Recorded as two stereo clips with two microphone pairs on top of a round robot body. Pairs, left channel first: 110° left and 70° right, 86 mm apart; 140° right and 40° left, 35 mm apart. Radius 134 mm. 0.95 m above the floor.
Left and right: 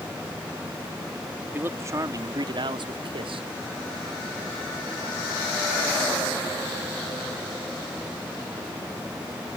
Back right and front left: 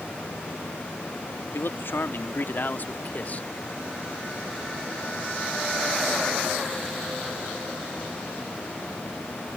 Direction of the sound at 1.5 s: 140° right.